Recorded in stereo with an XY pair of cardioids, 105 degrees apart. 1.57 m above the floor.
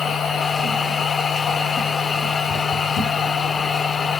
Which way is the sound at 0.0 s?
50° left.